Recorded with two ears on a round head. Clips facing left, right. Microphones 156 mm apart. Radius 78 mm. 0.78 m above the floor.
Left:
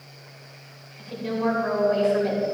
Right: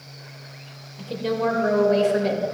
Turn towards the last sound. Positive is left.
turn(degrees=-45)  # may be behind; listen again after turning